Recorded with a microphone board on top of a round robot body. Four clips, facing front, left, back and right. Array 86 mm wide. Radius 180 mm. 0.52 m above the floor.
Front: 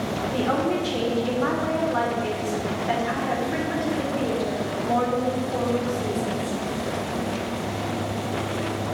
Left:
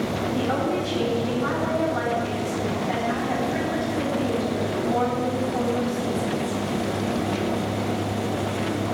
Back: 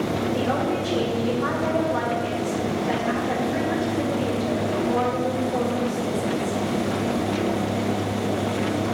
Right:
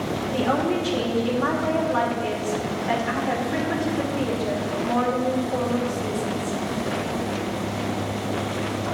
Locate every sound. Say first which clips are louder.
0.3 s a woman speaking: right 3 dB, front 3 dB; 45° right, 3 m